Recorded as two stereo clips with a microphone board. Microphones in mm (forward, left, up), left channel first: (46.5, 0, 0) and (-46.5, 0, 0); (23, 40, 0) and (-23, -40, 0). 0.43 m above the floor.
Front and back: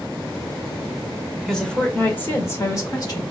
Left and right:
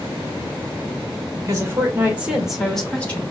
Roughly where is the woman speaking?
Right.